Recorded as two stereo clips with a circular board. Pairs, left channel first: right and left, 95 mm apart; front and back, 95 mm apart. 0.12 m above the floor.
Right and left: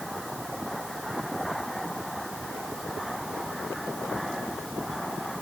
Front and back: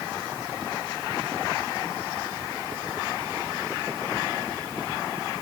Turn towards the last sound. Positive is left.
No sound to turn to.